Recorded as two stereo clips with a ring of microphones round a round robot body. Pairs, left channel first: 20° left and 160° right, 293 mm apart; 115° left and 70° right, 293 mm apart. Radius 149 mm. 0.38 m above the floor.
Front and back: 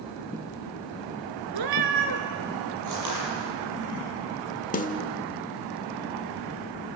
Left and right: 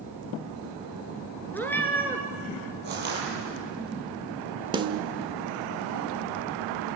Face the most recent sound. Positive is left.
turn(degrees=-10)